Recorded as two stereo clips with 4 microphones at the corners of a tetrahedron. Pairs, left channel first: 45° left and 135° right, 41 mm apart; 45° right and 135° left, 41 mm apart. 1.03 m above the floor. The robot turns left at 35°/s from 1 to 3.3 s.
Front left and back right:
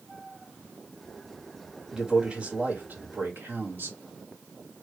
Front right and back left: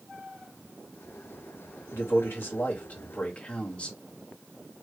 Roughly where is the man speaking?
Ahead right.